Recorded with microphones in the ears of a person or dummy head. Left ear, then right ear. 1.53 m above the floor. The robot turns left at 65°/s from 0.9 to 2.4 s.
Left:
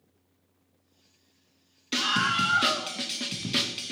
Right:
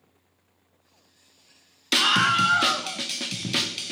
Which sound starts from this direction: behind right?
A scream, at 1.9 s.